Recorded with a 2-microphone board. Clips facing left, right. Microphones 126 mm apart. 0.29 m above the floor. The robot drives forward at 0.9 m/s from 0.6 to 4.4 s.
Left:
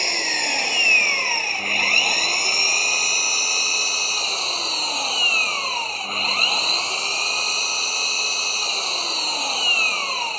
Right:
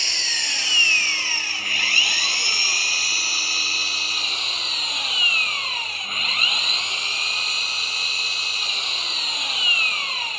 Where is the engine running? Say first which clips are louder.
Left 9 dB; 55° left (ahead or behind); by 10.4 s 35° left (ahead or behind).